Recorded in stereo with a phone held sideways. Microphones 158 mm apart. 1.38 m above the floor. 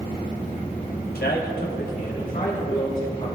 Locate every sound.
1.1 s a man speaking: 80° left, 1.5 m; by 3.3 s 45° left (ahead or behind), 3 m